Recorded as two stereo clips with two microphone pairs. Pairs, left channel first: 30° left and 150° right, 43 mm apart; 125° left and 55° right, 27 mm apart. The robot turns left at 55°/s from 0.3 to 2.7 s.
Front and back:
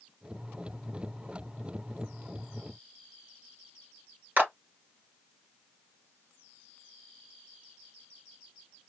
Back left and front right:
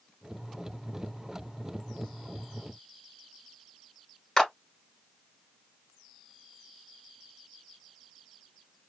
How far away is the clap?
About 2 m.